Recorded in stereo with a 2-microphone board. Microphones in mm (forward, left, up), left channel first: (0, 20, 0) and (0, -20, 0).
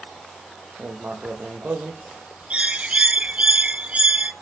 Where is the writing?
45° right (ahead or behind), 5.5 m.